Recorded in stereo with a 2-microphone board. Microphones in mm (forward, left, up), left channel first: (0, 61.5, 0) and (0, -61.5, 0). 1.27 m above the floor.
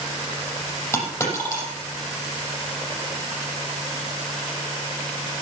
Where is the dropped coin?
20° left (ahead or behind), 6.5 m.